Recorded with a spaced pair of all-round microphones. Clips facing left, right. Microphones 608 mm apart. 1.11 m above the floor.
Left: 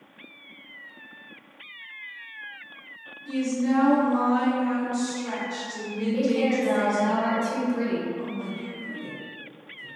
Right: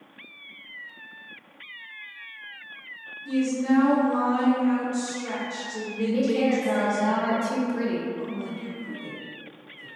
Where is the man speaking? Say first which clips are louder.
Even; 25° left (ahead or behind), 0.9 m.